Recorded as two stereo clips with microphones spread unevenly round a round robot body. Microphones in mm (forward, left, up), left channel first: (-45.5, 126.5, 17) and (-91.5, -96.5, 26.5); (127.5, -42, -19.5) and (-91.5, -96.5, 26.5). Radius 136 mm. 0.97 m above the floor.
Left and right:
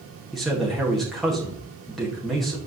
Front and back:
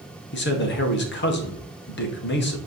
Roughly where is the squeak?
I don't hear a squeak.